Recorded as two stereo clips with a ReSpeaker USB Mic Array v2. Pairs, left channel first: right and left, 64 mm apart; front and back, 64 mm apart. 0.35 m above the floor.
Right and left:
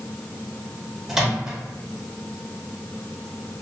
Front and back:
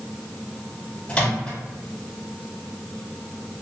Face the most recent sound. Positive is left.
turn(degrees=20)